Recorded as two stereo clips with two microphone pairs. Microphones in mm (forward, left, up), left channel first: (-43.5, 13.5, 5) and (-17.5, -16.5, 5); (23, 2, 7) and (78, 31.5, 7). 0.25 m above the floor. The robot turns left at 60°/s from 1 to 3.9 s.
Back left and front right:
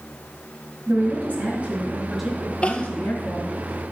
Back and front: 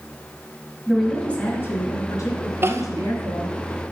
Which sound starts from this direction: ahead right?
A woman speaking, at 0.9 s.